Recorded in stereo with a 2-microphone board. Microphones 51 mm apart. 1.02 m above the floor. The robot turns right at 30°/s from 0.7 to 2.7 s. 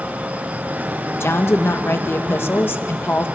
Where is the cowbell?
I don't hear a cowbell.